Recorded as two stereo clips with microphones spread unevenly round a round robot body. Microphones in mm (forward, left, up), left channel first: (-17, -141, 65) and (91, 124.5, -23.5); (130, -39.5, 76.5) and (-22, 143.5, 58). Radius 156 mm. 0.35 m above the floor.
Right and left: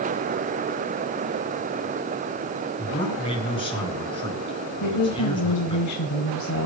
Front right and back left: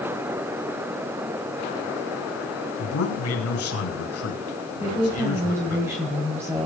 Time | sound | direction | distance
2.8 | a man speaking | 35° right | 5 m
4.8 | a woman speaking | 155° right | 2 m